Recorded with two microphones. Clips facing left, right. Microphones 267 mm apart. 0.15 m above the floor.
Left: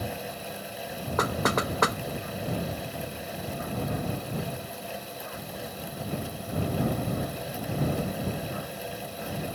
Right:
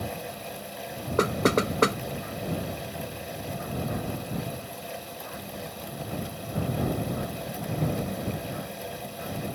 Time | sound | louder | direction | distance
1.2 | knocking | right 5 dB | 35° right (ahead or behind) | ?